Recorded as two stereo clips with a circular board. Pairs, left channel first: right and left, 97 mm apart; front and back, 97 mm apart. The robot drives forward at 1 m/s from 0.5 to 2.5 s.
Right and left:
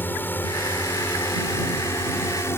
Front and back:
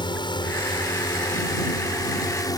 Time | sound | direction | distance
0.0 | a drone | 25° right | ?